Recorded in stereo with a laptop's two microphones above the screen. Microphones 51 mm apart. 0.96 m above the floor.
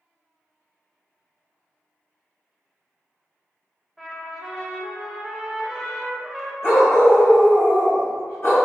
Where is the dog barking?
55° left (ahead or behind), 1.1 m.